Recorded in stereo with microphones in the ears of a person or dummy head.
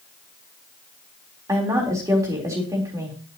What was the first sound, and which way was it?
A woman speaking, 15° right (ahead or behind).